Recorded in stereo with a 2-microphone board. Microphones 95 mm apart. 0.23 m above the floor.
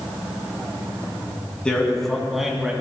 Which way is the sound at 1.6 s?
10° left (ahead or behind).